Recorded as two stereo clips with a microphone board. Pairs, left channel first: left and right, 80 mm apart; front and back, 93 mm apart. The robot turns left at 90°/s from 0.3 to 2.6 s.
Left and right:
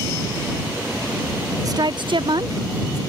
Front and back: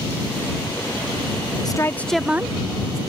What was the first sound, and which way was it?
A woman speaking, 45° right.